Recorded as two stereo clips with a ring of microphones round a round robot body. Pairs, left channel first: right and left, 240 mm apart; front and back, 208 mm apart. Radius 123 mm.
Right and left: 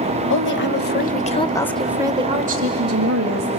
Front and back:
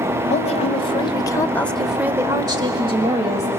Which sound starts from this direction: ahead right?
A woman speaking, at 0.3 s.